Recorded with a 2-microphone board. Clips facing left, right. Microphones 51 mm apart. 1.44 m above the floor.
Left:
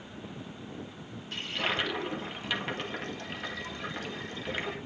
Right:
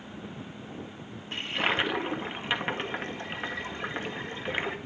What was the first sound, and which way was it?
A toilet flushing, 30° right (ahead or behind).